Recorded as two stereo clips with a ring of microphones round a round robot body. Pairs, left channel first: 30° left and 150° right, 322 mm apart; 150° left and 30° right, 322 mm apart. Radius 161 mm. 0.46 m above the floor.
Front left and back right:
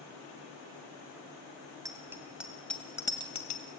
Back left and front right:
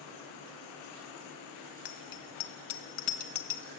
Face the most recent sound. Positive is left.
turn(degrees=95)